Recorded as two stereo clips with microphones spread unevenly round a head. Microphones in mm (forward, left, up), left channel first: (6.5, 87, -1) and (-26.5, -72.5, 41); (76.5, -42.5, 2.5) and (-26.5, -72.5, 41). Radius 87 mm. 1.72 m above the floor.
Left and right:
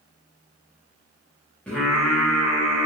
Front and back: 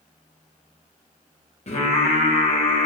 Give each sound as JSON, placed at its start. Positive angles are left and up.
{"t": 1.7, "sound": "singing", "azimuth_deg": -10, "distance_m": 3.5}